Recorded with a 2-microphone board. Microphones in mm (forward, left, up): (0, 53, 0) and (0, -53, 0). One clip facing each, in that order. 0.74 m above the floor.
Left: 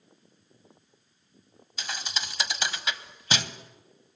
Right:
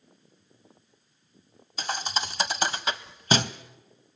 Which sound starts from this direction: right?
A thud, at 1.8 s.